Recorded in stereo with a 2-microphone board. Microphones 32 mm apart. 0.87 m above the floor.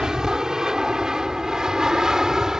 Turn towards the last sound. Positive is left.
turn(degrees=-20)  # may be behind; listen again after turning